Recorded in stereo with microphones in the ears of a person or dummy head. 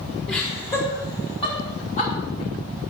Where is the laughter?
5° left (ahead or behind), 4 m; by 2.1 s 40° left (ahead or behind), 4 m.